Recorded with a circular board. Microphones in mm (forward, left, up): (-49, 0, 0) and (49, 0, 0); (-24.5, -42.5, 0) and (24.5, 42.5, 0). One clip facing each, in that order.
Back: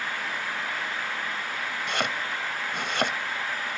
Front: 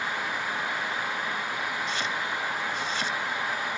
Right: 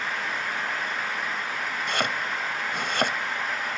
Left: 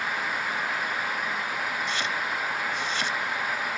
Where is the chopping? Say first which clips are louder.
Back 1 dB, right 2 dB; 150° right.